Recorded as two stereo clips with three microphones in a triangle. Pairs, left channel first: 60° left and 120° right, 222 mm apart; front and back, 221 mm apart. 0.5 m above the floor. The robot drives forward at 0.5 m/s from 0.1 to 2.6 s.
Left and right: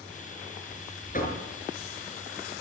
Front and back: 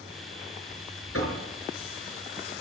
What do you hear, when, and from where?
1.1 s knocking: 5° left, 4.5 m; by 1.4 s 10° left, 4.5 m